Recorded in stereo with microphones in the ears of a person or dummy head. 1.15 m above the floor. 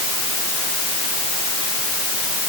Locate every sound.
Only background noise.